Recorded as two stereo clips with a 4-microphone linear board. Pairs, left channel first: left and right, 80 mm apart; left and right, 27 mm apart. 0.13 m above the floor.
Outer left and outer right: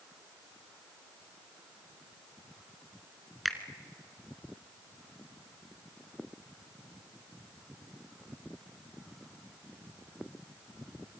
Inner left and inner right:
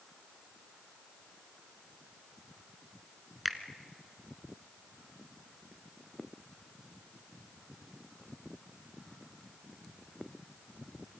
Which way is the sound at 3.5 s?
Centre (ahead or behind).